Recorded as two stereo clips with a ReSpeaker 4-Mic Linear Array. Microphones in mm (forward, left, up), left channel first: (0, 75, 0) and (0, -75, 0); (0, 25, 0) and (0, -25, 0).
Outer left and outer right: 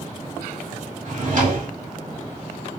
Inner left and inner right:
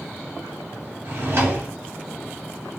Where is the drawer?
60° right (ahead or behind), 0.9 m.